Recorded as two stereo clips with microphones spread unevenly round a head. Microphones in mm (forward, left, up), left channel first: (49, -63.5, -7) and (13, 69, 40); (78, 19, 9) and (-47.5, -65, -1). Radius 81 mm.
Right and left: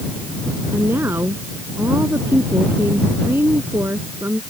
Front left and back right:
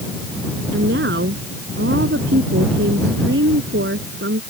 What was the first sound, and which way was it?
A woman speaking, 175° right.